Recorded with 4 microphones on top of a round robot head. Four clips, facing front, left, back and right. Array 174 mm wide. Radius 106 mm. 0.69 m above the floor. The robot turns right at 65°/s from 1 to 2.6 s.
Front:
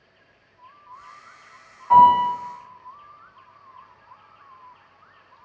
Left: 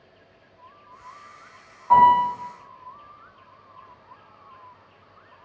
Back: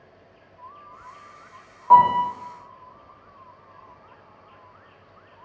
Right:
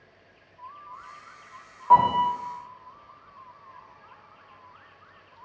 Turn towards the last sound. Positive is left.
turn(degrees=-115)